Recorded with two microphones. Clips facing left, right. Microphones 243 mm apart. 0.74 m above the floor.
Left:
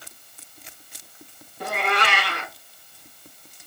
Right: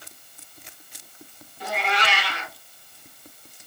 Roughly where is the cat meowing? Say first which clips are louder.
Left 2 dB; left.